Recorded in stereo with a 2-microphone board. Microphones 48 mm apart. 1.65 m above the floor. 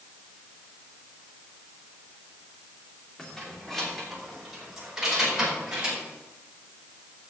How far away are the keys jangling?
About 3 m.